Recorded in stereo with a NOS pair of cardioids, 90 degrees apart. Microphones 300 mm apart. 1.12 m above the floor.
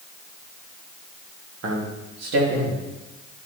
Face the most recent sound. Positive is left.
turn(degrees=-70)